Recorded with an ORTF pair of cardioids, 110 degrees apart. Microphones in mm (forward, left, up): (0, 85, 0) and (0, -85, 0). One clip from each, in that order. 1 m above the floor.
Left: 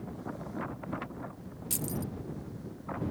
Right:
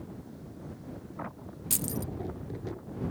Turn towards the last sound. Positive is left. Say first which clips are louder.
# right 2 dB
turn(degrees=-20)